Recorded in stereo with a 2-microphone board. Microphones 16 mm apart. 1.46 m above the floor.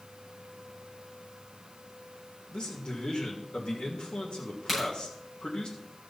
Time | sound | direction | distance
2.5 | a man speaking | 80° left | 2 m
4.7 | a crack | 10° left (ahead or behind) | 6.5 m